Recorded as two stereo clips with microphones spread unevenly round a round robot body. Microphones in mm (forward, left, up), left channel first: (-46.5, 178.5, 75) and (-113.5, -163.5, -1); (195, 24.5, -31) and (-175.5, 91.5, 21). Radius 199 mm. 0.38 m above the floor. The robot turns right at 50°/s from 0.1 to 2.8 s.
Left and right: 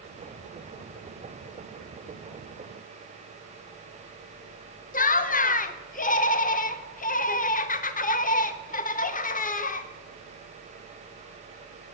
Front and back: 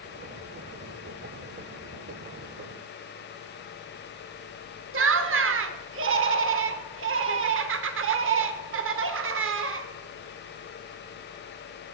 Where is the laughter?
145° left, 0.8 m.